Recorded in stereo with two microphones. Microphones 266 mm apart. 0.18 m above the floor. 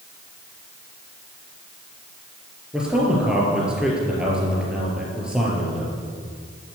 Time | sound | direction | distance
2.7 | a man speaking | 5° right (ahead or behind) | 4 m